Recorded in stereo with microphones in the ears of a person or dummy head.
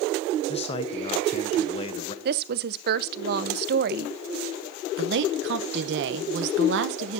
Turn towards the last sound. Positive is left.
turn(degrees=-60)  # may be behind; listen again after turning